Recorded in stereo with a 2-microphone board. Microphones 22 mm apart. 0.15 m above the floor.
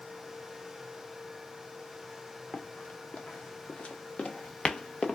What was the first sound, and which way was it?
Running footsteps, 80° left.